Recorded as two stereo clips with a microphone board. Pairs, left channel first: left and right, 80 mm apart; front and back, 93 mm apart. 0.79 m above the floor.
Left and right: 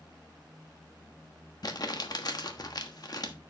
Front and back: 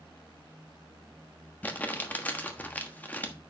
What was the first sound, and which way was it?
Crumpling, 70° left.